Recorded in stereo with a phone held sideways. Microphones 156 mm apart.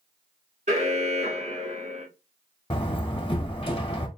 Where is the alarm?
50° right (ahead or behind), 1.6 m.